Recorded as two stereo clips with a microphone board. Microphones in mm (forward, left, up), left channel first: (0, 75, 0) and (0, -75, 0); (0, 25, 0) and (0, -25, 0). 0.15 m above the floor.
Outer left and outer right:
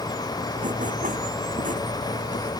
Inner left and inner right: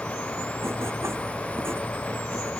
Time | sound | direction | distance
0.6 | writing | 55° right (ahead or behind) | ?